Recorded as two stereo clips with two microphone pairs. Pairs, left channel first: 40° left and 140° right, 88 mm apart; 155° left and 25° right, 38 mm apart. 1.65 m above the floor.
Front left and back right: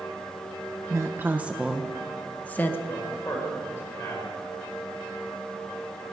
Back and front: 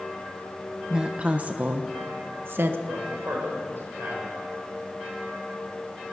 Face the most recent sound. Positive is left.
turn(degrees=-25)